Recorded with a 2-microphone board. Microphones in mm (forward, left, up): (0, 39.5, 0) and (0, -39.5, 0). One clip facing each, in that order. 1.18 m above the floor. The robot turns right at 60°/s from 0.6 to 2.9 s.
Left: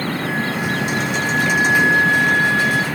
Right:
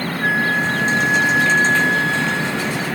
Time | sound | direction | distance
0.2 | a flute | 55° right | 1.8 m